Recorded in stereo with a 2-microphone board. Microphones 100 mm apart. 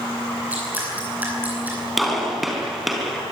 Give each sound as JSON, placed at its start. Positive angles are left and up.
{"t": 0.5, "sound": "dripping", "side_deg": -15, "distance_m": 9.5}
{"t": 2.0, "sound": "a gunshot", "side_deg": 0, "distance_m": 4.5}